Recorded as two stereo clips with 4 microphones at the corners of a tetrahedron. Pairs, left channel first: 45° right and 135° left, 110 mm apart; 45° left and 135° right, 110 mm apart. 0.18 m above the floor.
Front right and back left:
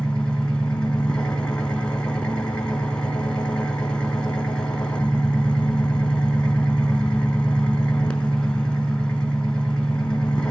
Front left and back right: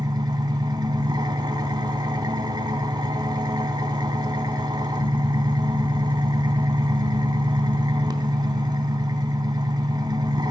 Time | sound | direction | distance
0.0 | an engine running | 120° right | 1.0 m